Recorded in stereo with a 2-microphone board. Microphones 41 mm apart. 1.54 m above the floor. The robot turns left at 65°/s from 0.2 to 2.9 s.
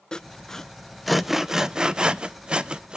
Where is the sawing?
20° left (ahead or behind), 0.5 m; by 3.0 s 20° right (ahead or behind), 0.5 m.